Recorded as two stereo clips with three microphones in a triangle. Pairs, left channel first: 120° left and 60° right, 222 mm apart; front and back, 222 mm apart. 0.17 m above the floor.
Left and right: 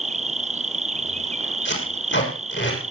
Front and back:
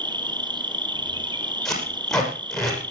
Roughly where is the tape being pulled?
Left.